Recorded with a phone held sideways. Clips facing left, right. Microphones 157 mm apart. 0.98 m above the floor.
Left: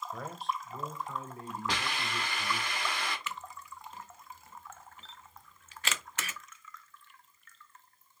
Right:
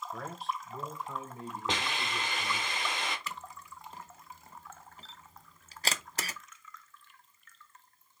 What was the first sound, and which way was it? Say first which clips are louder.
A man speaking: left 1 dB; 10° left (ahead or behind).